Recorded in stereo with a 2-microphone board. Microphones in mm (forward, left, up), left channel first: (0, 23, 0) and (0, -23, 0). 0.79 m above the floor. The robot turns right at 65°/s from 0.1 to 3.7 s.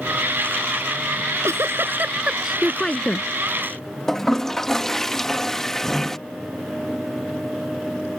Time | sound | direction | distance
1.2 | a giggle | 100° right | ?
4.1 | a toilet flushing | 10° left (ahead or behind) | ?